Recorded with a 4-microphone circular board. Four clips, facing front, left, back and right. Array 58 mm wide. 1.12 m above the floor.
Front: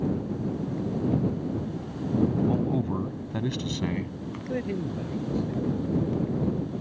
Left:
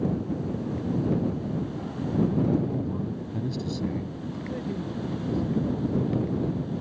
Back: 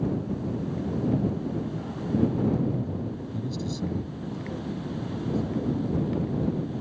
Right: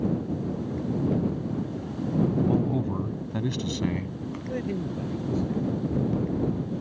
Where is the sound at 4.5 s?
25° right.